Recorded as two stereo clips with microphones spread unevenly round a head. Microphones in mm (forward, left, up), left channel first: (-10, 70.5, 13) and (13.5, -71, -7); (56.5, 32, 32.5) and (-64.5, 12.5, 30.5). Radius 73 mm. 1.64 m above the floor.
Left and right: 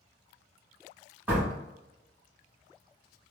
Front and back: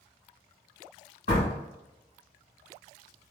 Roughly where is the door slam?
Ahead.